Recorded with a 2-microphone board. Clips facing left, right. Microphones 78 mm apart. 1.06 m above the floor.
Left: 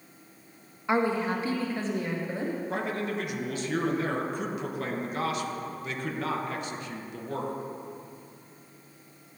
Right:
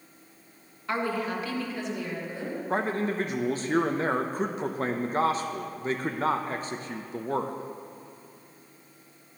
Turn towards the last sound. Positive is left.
turn(degrees=-35)  # may be behind; listen again after turning